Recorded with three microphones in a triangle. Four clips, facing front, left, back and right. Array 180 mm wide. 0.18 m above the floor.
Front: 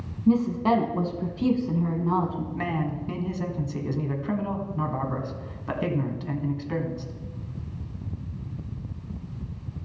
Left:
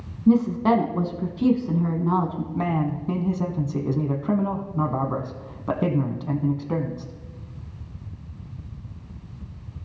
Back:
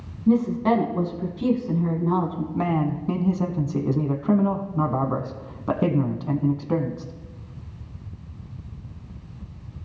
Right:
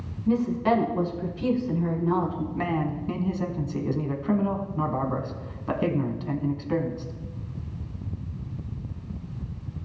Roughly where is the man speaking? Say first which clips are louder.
Left 4 dB, back 8 dB; behind left.